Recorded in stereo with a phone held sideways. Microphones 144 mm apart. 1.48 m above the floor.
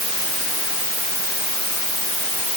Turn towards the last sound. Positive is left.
No sound to turn to.